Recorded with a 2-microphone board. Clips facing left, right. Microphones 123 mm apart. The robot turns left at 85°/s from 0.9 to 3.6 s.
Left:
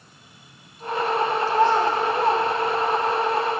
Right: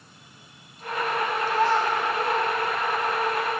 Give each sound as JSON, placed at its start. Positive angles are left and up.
{"t": 1.5, "sound": "a child speaking", "side_deg": 10, "distance_m": 1.0}